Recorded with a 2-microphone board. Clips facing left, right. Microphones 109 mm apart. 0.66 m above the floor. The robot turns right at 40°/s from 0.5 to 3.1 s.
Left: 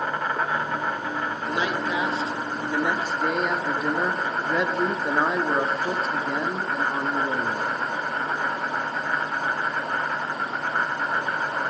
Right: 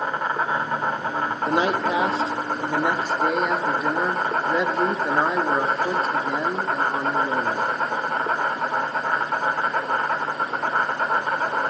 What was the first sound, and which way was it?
An insect, 155° right.